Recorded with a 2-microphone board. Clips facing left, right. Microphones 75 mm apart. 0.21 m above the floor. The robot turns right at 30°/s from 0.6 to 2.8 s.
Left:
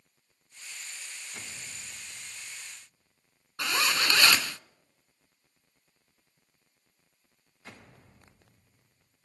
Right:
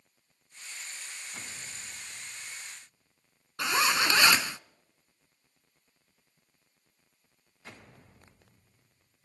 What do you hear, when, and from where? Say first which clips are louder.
3.6 s a zipper: right 2 dB; 20° right (ahead or behind), 0.5 m